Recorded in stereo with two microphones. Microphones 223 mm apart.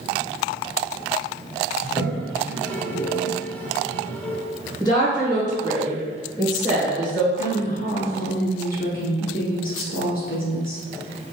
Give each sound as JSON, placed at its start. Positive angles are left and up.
{"t": 1.8, "sound": "a toilet flushing", "side_deg": 10, "distance_m": 1.4}
{"t": 4.8, "sound": "a woman speaking", "side_deg": 20, "distance_m": 1.9}
{"t": 7.4, "sound": "a woman speaking", "side_deg": 45, "distance_m": 1.5}